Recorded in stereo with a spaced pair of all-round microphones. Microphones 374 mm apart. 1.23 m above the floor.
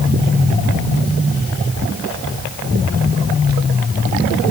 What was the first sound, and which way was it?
Only background noise.